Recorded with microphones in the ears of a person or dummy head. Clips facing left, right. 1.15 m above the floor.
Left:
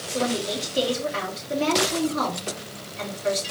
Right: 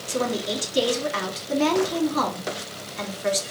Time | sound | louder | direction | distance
0.1 | a woman speaking | even | 75° right (ahead or behind) | 2 m